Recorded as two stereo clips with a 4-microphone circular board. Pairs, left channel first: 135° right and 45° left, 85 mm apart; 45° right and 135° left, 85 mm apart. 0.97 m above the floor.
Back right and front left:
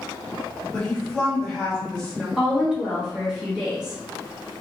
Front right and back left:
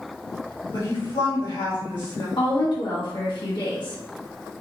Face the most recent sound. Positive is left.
turn(degrees=-35)